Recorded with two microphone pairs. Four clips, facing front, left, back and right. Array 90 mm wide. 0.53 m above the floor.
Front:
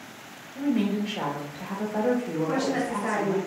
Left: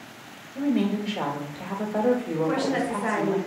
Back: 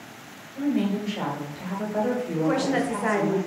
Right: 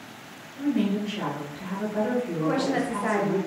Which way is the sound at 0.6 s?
65° left.